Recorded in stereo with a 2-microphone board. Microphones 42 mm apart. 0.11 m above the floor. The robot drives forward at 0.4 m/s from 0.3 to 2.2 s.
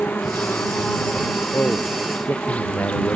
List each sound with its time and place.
0.0 s an insect: 45° left (ahead or behind); by 3.2 s 30° left (ahead or behind)
1.5 s a man speaking: 50° left (ahead or behind)